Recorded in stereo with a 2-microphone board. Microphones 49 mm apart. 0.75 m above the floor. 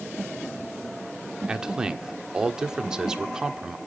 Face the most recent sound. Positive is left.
turn(degrees=-15)  # may be behind; listen again after turning